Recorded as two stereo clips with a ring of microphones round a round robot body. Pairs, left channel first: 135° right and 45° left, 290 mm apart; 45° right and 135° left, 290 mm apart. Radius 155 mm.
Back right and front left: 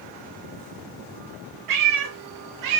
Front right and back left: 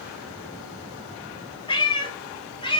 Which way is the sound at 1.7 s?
30° left.